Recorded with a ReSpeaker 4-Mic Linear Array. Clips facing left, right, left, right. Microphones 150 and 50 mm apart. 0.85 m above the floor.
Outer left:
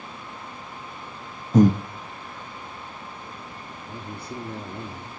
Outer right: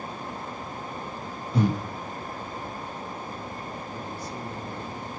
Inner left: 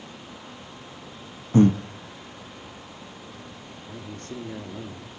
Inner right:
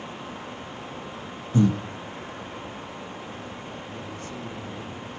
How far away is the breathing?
About 0.9 m.